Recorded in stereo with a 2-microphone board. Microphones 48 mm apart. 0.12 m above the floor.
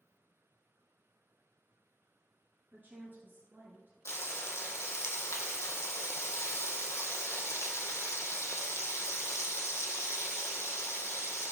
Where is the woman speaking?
35° right (ahead or behind), 1.9 m; by 4.0 s 45° right (ahead or behind), 2.5 m.